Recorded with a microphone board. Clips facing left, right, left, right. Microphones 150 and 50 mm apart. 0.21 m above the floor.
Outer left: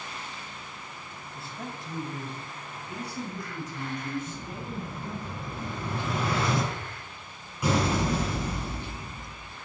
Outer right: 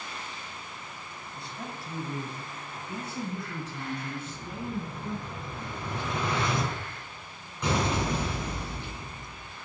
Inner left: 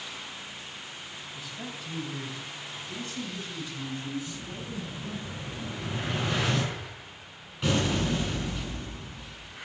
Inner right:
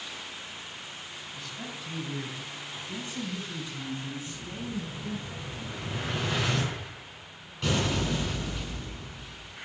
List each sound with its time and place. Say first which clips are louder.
1.4 s a man speaking: outer left 1 dB, even; 5° left (ahead or behind), 1.1 m; by 5.3 s 35° right (ahead or behind), 2 m
4.3 s an explosion: outer right 1 dB, inner right 1 dB; 5° left (ahead or behind), 2.5 m